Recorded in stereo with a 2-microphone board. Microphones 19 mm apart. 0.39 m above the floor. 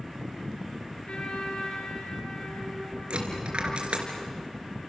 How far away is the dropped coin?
About 3.5 m.